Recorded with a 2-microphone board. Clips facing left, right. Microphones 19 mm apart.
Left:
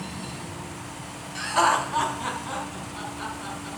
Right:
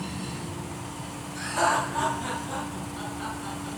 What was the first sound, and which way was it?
Laughter, 50° left (ahead or behind).